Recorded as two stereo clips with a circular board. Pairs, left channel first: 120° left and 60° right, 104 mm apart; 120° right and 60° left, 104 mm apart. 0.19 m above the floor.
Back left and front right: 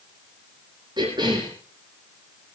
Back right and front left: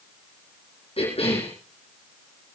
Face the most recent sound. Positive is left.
turn(degrees=-105)